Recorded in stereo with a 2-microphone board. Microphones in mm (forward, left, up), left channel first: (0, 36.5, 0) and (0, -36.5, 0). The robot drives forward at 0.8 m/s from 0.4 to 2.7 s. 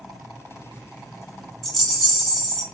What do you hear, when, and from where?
1.6 s a rattle: 5° left (ahead or behind), 1.8 m